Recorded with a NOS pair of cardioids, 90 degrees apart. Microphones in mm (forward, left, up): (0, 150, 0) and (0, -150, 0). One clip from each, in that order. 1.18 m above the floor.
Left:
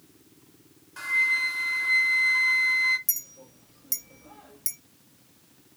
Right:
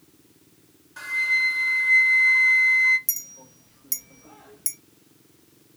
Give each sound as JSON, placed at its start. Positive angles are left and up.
{"t": 1.0, "sound": "a flute", "azimuth_deg": 5, "distance_m": 0.8}
{"t": 3.1, "sound": "a clink", "azimuth_deg": -10, "distance_m": 0.7}